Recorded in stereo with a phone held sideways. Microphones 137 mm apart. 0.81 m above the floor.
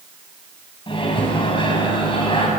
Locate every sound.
0.9 s a microwave: 40° left (ahead or behind), 5.5 m